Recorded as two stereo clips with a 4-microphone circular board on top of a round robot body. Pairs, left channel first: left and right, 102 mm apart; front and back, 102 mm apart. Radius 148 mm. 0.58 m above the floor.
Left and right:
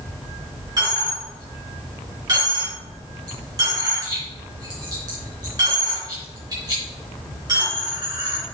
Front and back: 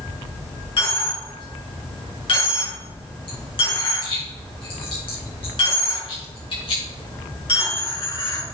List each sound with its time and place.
0.8 s a dropped coin: 35° right, 3.5 m